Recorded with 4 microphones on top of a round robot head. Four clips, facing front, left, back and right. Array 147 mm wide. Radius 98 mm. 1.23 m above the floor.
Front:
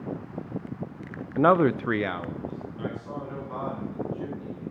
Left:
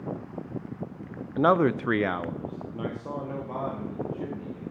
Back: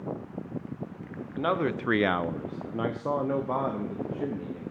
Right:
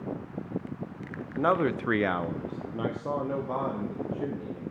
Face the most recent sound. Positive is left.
turn(degrees=-165)